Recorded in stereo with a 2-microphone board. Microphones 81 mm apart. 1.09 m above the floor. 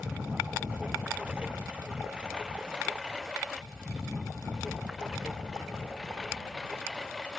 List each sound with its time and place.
0.0 s a lawn mower: 15° right (ahead or behind); by 7.4 s centre (ahead or behind)